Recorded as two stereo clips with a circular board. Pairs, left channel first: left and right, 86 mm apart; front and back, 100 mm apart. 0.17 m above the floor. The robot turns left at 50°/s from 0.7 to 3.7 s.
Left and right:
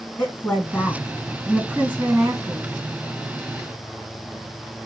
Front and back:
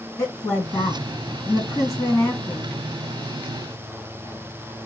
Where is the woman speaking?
35° left, 2 m; by 2.7 s 65° right, 2 m.